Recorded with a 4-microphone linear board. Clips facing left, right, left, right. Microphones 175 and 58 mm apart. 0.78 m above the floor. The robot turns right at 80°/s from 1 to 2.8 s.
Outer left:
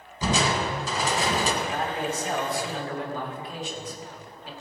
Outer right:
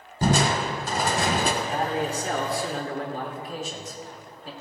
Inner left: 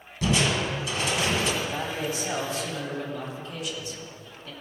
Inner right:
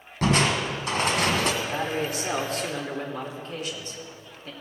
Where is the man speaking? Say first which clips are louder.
Outer right 2 dB, inner right 2 dB; 140° right, 2 m; by 4.5 s 45° right, 2 m.